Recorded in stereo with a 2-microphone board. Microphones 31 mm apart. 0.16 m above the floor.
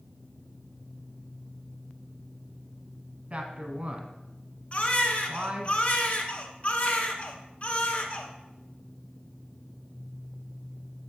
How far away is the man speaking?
About 1.2 m.